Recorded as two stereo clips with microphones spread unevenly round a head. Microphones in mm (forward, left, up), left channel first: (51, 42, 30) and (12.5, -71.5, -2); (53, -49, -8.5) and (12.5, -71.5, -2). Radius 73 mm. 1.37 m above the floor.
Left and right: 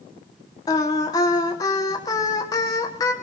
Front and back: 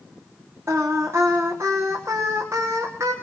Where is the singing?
140° left, 1.1 m.